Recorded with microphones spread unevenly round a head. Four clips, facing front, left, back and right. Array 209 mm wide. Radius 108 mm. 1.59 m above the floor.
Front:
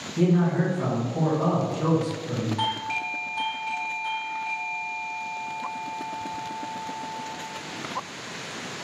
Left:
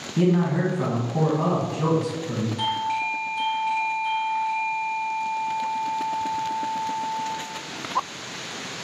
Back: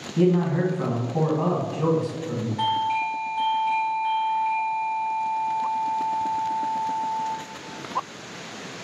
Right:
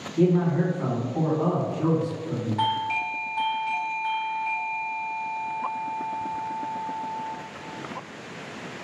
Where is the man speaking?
110° left, 1.6 m.